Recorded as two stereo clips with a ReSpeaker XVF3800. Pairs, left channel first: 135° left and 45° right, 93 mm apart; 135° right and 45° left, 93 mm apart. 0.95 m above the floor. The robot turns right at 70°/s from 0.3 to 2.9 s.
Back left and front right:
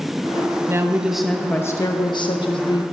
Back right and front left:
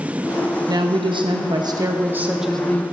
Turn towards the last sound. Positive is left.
turn(degrees=165)